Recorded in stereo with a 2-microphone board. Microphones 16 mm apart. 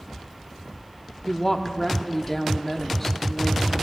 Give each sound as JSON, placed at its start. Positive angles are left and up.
{"t": 1.3, "sound": "a woman speaking", "side_deg": 25, "distance_m": 1.0}